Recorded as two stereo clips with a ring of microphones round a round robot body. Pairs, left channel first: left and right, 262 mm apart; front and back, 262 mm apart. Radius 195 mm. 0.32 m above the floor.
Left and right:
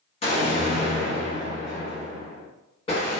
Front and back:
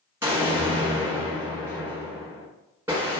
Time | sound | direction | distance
0.2 | an explosion | 110° left | 1.3 m